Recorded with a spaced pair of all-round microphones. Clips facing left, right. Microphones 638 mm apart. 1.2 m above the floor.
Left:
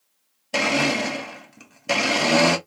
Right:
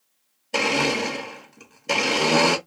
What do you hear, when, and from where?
0.5 s a blender: 15° left (ahead or behind), 0.6 m